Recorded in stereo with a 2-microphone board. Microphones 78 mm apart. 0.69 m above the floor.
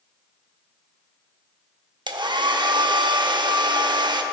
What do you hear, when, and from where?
2.1 s a hair dryer: 75° right (ahead or behind), 0.5 m